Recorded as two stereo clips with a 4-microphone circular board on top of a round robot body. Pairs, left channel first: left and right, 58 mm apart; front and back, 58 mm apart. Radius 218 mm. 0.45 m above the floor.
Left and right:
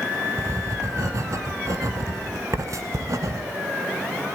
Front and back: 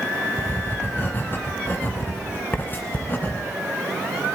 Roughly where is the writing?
Ahead right.